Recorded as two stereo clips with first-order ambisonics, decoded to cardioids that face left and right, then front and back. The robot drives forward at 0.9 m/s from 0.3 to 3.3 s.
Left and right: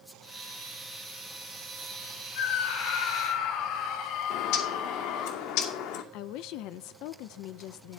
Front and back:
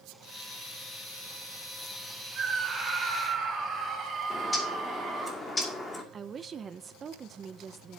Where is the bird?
75° left, 2.5 m.